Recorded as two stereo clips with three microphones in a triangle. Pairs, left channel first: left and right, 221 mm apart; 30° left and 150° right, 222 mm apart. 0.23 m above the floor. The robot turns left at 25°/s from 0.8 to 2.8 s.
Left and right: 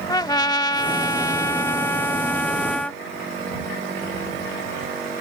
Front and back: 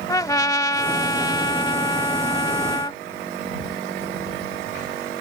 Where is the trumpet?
65° left; by 3.0 s 15° left.